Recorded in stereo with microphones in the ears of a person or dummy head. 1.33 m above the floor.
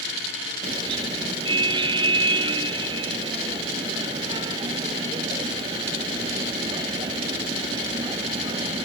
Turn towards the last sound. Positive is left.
turn(degrees=-20)  # may be behind; listen again after turning